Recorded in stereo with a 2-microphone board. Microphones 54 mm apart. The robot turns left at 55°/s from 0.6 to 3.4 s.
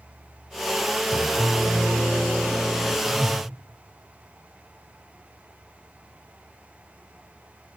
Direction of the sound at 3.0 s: 35° left (ahead or behind).